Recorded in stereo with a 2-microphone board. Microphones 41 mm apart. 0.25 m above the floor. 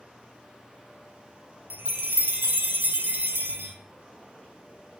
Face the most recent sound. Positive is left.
turn(degrees=-60)  # may be behind; listen again after turning